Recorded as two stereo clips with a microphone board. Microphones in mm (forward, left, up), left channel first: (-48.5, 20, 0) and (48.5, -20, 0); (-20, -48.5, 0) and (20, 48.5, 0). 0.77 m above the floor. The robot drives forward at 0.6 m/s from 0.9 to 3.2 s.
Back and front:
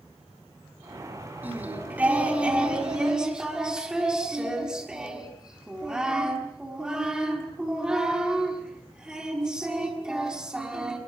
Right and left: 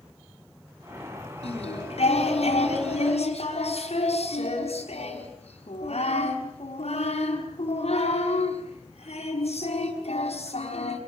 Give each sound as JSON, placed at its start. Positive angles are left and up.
{"t": 1.4, "sound": "singing", "azimuth_deg": -95, "distance_m": 6.0}